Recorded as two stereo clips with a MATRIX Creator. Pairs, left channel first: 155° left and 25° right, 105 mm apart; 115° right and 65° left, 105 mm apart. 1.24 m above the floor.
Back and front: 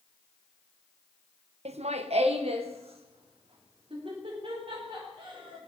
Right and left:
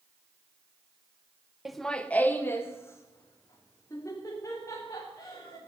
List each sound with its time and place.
1.6 s laughter: 20° right, 0.8 m; by 5.6 s 55° right, 5 m